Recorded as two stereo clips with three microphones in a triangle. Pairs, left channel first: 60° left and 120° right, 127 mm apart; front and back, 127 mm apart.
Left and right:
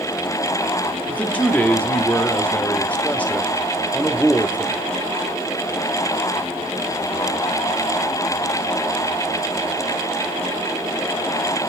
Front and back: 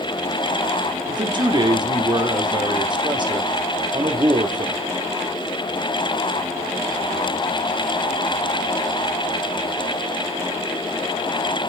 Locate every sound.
1.1 s a man speaking: 135° left, 1.0 m